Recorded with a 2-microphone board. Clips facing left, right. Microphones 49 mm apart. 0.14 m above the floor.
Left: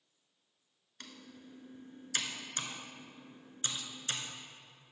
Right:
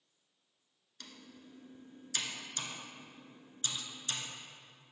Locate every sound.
1.0 s typing on a keyboard: 40° left (ahead or behind), 0.9 m